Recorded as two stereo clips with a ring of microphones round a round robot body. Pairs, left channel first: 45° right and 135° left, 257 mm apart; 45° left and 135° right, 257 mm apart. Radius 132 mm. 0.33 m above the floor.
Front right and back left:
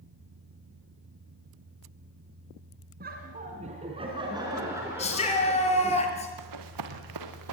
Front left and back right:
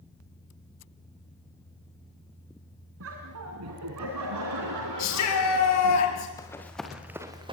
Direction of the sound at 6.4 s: 125° left.